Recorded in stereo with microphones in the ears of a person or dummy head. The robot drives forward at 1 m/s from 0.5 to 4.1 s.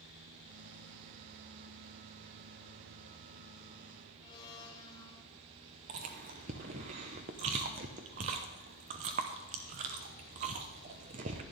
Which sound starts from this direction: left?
A blender, at 4.2 s.